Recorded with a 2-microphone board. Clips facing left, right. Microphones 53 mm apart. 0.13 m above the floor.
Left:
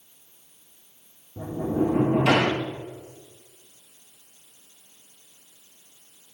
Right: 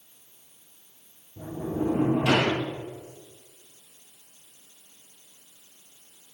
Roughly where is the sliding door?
Left.